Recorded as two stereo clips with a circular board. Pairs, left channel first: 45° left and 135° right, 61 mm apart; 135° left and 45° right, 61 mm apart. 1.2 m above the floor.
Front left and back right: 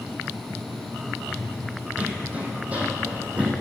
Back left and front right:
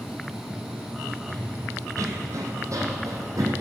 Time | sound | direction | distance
1.3 | running footsteps | 70° right | 2.5 m